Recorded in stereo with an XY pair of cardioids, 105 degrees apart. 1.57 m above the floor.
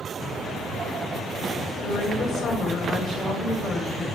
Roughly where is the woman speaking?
Ahead left.